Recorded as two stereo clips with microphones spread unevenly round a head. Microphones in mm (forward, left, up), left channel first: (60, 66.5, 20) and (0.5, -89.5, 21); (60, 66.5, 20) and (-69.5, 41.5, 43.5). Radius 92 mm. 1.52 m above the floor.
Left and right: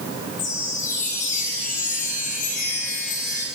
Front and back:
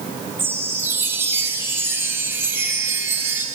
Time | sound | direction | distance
0.4 | a chime | 120° left | 5 m